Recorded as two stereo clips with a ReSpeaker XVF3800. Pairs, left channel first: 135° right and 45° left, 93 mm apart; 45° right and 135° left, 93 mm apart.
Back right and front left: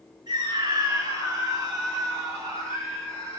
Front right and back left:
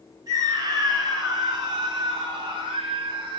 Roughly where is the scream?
Left.